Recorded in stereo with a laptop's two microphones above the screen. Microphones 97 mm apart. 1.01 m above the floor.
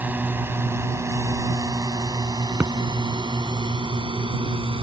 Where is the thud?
15° right (ahead or behind).